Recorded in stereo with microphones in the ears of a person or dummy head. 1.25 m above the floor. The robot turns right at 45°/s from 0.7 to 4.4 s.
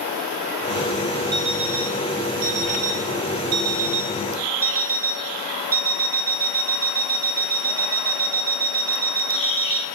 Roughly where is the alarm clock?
Behind right.